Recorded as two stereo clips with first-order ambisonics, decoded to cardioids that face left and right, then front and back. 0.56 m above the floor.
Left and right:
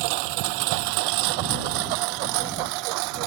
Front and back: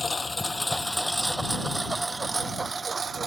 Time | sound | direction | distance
0.0 | a lawn mower | 80° right | ?